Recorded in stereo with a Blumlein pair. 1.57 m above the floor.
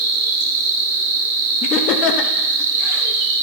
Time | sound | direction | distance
0.0 | an insect | 50° right | 0.8 m
1.6 | laughter | 35° left | 0.8 m